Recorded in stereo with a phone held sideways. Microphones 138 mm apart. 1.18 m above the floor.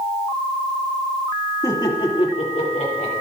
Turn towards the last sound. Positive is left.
turn(degrees=70)  # may be behind; listen again after turning